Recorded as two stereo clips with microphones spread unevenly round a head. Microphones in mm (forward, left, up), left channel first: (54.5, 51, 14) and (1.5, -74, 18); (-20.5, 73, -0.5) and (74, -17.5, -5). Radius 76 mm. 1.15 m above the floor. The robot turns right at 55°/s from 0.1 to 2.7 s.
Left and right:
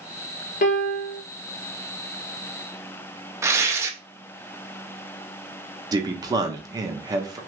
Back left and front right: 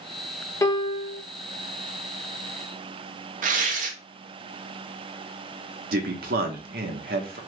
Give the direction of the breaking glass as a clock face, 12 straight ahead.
No breaking glass in this recording.